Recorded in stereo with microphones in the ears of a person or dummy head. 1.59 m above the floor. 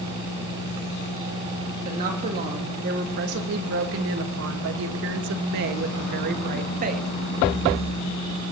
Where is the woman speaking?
45° right (ahead or behind), 2 m; by 7.1 s 40° right (ahead or behind), 2 m.